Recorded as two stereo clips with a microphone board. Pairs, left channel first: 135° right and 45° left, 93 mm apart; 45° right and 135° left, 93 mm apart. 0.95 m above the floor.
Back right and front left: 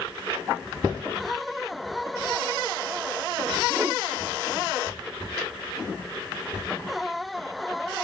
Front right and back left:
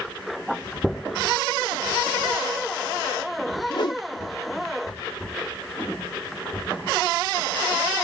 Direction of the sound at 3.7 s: 20° right.